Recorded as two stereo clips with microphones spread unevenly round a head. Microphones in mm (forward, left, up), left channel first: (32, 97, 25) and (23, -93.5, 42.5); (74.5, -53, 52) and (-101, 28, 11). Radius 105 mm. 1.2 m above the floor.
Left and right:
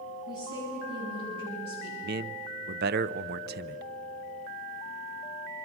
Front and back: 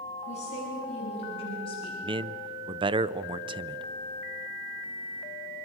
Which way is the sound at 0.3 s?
80° right.